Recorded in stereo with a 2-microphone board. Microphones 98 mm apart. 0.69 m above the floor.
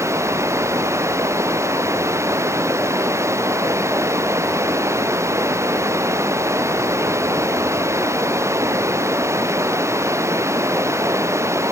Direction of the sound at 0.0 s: 30° right (ahead or behind).